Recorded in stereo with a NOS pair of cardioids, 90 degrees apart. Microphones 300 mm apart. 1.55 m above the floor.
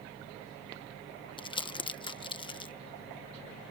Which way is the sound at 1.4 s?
15° left.